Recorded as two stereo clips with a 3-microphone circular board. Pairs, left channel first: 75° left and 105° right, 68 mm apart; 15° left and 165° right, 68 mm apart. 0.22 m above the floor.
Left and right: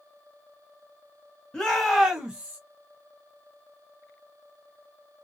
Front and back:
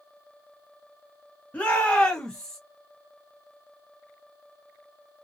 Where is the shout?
10° left, 1.0 m; by 2.6 s 60° right, 1.1 m.